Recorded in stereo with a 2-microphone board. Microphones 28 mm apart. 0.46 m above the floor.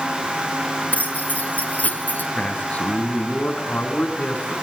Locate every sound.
0.9 s keys jangling: 65° left (ahead or behind), 6 m; by 2.2 s 70° left (ahead or behind), 4.5 m
2.4 s a man speaking: 60° left (ahead or behind), 4.5 m